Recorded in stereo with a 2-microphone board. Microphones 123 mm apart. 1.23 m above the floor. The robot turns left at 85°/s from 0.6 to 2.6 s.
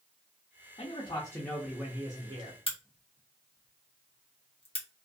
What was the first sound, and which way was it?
A man speaking, 75° left.